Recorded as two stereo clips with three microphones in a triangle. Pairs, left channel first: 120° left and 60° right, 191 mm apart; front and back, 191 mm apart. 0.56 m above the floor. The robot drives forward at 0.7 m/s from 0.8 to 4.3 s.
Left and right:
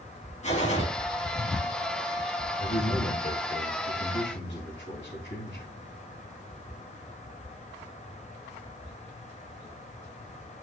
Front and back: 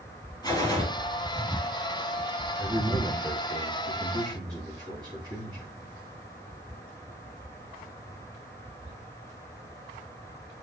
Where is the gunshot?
70° left, 3.5 m.